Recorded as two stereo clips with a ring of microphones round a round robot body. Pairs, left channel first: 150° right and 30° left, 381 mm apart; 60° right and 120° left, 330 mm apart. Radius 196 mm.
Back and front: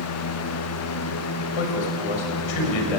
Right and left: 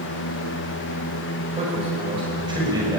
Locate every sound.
1.5 s a man speaking: 165° right, 6.5 m; by 3.0 s 160° right, 6 m